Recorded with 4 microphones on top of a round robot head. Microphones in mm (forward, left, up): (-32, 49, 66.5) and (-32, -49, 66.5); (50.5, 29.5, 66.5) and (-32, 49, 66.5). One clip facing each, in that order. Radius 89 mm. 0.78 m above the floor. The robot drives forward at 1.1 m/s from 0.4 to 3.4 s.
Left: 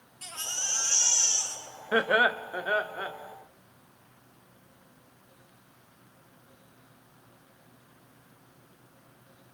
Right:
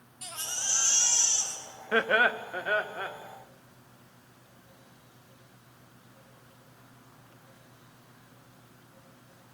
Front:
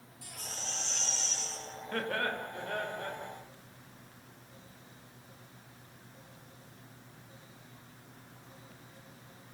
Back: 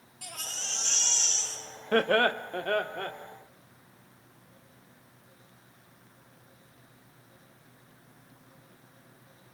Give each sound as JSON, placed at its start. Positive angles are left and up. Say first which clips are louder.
{"t": 0.2, "sound": "a baby crying", "louder": "even, back 2 dB", "azimuth_deg": -165, "distance_m": 3.5}
{"t": 1.9, "sound": "laughter", "louder": "left 1 dB, back 10 dB", "azimuth_deg": 170, "distance_m": 1.1}